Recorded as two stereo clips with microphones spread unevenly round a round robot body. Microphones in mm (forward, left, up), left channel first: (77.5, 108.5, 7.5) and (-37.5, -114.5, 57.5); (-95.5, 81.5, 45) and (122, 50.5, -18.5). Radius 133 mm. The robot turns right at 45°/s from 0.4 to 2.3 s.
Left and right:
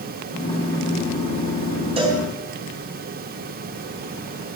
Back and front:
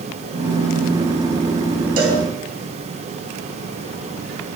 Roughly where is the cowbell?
Ahead right.